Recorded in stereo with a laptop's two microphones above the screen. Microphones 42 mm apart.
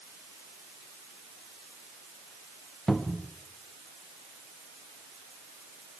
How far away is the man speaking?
No man speaking in this recording.